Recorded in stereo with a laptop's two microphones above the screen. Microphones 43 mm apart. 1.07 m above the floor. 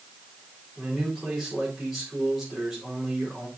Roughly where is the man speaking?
Centre.